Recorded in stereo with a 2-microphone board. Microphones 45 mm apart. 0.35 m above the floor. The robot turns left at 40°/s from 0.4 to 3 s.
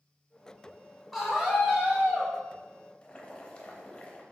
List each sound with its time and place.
1.1 s a scream: 5° right, 1.0 m; by 2.3 s 50° right, 1.0 m
3.0 s boiling: 25° left (ahead or behind), 0.7 m